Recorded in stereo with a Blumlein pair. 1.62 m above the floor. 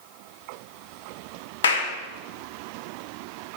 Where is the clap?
65° left, 1.2 m.